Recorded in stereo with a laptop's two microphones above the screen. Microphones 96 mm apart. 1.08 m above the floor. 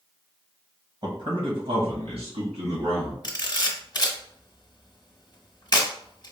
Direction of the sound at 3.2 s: 40° left (ahead or behind).